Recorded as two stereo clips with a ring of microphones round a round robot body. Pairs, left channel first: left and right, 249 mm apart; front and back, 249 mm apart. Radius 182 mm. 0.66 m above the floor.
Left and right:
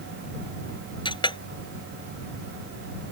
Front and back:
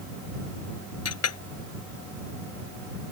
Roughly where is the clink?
Ahead.